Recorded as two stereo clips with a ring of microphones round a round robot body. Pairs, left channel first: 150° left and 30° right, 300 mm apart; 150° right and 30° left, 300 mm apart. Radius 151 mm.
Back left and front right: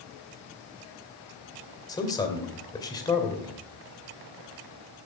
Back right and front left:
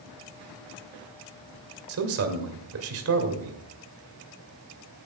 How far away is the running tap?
No running tap in this recording.